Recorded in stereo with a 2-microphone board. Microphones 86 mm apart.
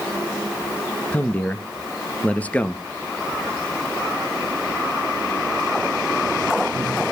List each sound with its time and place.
1.1 s a man speaking: 15° left (ahead or behind), 1.7 m